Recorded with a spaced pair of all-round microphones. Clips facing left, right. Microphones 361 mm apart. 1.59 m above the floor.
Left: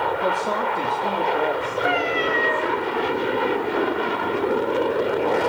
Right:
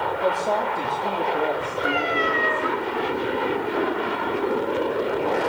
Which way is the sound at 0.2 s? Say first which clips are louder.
Even; 20° left (ahead or behind).